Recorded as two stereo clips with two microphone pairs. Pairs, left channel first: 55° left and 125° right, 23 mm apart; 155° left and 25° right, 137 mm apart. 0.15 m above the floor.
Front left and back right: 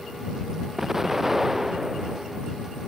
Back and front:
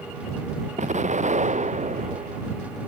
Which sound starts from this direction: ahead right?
An explosion, at 0.8 s.